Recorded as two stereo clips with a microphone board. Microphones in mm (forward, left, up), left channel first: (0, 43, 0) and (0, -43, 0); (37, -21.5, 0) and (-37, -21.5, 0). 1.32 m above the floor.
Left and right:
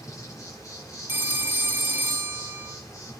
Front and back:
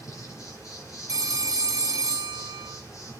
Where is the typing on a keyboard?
No typing on a keyboard in this recording.